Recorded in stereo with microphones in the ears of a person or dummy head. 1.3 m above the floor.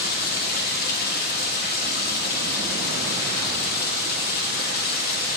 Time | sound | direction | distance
0.0 | running water | 50° left (ahead or behind) | 1.0 m